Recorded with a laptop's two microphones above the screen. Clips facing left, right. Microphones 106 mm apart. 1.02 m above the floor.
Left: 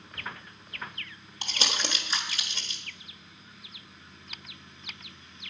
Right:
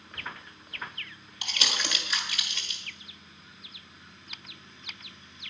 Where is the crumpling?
35° left (ahead or behind), 1.4 m.